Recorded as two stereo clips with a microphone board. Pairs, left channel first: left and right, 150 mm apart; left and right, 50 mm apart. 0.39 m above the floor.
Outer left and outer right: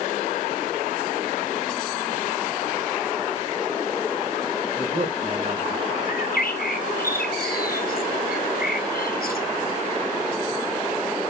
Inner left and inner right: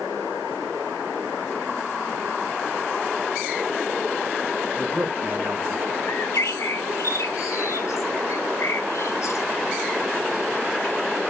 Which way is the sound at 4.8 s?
35° right (ahead or behind).